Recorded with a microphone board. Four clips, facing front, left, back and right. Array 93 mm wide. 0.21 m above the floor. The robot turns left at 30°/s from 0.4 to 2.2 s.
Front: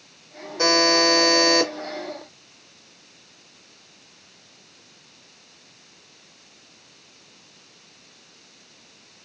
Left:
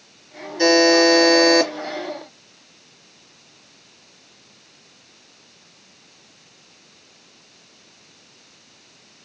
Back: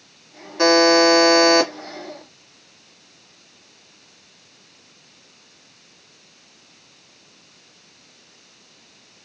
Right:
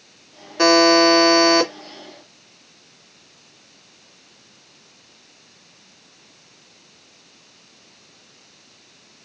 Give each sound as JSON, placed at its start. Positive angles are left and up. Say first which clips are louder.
{"t": 0.6, "sound": "a buzzer", "louder": "right 1 dB, back 6 dB", "azimuth_deg": -120, "distance_m": 2.0}